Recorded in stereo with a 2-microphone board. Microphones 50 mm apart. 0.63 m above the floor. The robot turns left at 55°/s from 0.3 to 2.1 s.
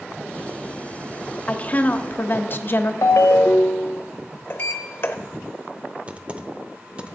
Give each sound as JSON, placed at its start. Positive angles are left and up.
{"t": 1.5, "sound": "a woman speaking", "azimuth_deg": 150, "distance_m": 0.7}
{"t": 3.0, "sound": "a ringtone", "side_deg": 85, "distance_m": 0.6}
{"t": 4.5, "sound": "a sliding door", "side_deg": 40, "distance_m": 0.8}
{"t": 6.1, "sound": "typing on a keyboard", "side_deg": -25, "distance_m": 0.7}